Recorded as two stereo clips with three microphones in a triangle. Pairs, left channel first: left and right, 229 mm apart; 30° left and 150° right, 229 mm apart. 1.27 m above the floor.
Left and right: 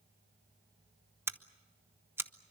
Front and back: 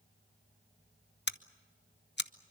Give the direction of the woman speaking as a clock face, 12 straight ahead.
I don't hear a woman speaking.